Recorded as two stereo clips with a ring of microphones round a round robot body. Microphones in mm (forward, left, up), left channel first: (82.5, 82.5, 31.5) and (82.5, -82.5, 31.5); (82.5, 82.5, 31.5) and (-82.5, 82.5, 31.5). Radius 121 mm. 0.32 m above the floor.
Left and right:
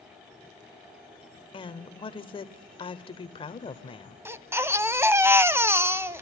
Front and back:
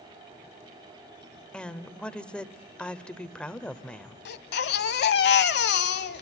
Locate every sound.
1.5 s a woman speaking: 80° left, 1.0 m
4.2 s a baby crying: 15° right, 0.9 m